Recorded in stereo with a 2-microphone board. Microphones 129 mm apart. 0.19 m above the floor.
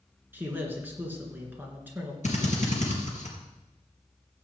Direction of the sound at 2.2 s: 70° left (ahead or behind).